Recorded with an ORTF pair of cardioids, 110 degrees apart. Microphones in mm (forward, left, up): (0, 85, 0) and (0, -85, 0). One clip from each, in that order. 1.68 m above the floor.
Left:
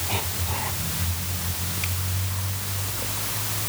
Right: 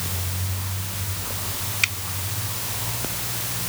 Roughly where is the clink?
No clink in this recording.